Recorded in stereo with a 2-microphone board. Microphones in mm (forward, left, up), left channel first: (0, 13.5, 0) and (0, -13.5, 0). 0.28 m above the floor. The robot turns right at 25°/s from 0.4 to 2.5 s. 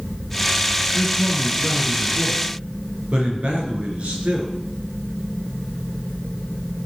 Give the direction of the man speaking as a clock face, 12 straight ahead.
6 o'clock.